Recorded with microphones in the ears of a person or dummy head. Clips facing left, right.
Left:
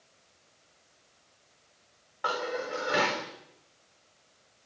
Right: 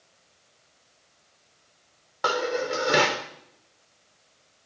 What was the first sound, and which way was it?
Dishes clattering, 60° right (ahead or behind).